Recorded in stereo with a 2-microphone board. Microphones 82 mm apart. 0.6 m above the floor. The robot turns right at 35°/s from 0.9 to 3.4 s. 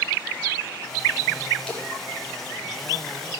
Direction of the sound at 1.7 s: 15° left (ahead or behind).